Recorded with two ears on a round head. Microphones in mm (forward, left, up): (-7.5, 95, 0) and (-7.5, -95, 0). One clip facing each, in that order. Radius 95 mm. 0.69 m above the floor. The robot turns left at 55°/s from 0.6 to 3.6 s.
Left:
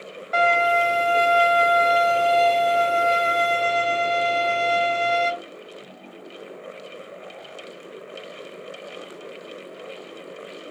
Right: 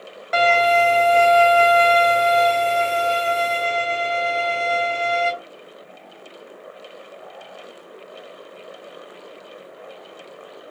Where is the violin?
65° right, 1.2 m; by 5.3 s 130° left, 1.2 m.